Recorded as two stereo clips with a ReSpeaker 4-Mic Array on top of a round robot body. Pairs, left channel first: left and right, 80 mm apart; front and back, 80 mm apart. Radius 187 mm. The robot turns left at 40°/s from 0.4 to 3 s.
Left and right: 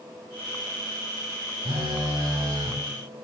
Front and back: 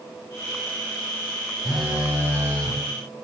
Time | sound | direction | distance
1.6 | a phone buzzing | 90° right | 0.6 m